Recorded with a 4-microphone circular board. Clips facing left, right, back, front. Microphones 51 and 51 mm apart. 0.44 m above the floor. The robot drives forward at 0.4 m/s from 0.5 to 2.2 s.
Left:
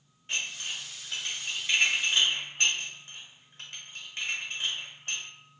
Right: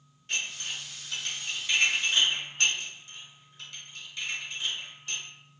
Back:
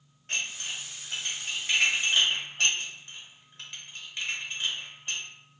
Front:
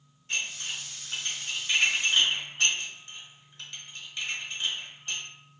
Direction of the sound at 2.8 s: 125° left.